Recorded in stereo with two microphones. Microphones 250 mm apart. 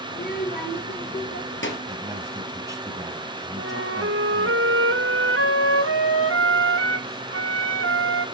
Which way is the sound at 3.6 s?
60° right (ahead or behind).